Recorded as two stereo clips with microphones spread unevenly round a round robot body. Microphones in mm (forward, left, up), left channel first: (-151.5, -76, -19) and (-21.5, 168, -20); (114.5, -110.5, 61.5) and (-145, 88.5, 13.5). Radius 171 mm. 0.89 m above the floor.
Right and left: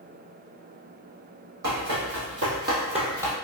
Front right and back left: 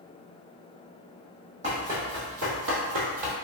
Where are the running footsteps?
70° left, 1.9 m; by 3.4 s 145° left, 1.4 m.